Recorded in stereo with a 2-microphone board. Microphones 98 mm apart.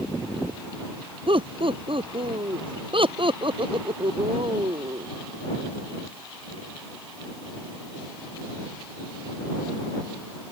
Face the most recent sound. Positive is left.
turn(degrees=-65)  # may be behind; listen again after turning